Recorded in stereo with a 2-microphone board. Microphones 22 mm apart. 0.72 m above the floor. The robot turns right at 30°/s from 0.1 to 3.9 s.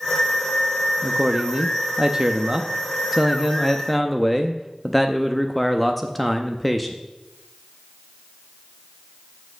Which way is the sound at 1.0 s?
80° right.